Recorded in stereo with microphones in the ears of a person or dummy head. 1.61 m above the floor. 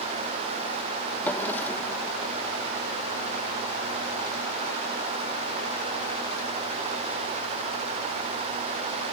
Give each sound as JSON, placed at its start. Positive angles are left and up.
{"t": 1.2, "sound": "a drawer", "side_deg": 10}